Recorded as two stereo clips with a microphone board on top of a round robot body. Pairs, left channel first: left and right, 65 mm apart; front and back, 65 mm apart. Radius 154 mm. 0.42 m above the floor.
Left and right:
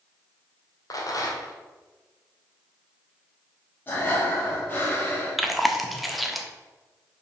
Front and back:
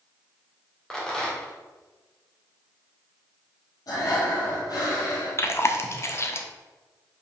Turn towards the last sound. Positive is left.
turn(degrees=0)